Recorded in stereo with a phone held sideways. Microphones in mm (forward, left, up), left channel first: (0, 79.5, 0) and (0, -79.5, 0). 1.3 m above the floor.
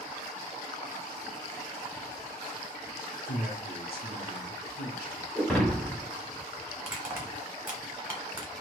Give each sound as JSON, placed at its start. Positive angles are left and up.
{"t": 3.2, "sound": "a man speaking", "side_deg": 80, "distance_m": 0.7}
{"t": 5.3, "sound": "breaking glass", "side_deg": 5, "distance_m": 0.9}
{"t": 6.8, "sound": "crushing", "side_deg": -10, "distance_m": 1.1}